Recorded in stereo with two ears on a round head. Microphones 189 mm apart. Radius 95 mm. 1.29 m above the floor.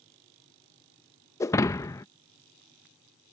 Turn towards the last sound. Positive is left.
turn(degrees=15)  # may be behind; listen again after turning